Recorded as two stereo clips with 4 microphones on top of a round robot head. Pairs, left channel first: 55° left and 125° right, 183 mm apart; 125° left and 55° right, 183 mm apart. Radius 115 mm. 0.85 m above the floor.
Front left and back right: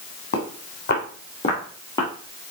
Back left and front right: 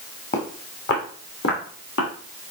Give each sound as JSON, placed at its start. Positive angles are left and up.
{"t": 0.3, "sound": "footsteps", "azimuth_deg": 80, "distance_m": 2.5}